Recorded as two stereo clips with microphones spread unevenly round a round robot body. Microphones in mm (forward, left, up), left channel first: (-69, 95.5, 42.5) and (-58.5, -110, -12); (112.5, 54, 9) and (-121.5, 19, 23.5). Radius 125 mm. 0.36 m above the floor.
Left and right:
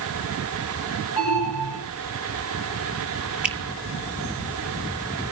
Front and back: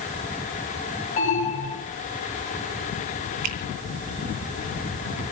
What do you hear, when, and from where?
1.2 s an alarm: 65° left, 5.5 m
3.4 s a finger snap: 170° right, 2.5 m